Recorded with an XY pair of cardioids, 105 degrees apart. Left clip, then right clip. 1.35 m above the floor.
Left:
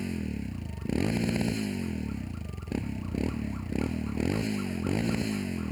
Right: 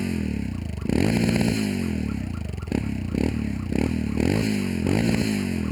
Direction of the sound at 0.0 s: 45° right.